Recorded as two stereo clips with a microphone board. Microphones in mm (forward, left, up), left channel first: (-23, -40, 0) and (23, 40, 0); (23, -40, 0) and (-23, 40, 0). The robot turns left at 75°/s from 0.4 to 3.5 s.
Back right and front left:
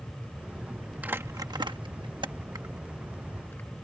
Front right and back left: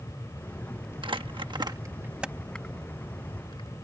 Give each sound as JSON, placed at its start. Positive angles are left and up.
{"t": 1.0, "sound": "crumpling", "azimuth_deg": 130}